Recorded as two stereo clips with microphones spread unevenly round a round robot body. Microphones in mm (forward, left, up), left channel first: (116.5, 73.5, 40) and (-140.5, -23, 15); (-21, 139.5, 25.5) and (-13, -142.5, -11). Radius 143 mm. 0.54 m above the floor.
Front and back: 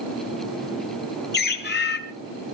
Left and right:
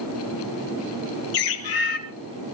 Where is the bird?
75° left, 2.5 m.